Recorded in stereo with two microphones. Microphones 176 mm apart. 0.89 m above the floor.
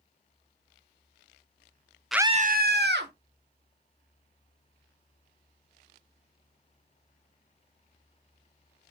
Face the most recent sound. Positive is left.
turn(degrees=-75)  # may be behind; listen again after turning